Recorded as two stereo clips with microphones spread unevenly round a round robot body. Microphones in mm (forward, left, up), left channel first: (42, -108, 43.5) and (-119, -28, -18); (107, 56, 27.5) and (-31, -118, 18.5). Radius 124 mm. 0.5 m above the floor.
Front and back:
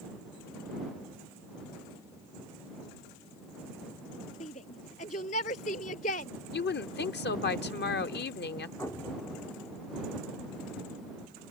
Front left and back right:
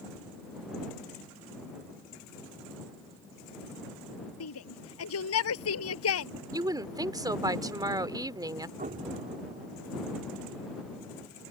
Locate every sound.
4.4 s a shout: 35° left
6.5 s a woman speaking: 60° right
8.8 s an explosion: 115° right